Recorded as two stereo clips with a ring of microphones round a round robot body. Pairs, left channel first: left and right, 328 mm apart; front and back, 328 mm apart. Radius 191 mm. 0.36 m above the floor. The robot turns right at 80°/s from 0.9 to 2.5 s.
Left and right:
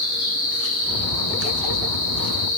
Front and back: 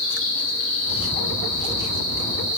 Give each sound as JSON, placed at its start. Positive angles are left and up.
{"t": 0.0, "sound": "an insect", "azimuth_deg": 20, "distance_m": 2.5}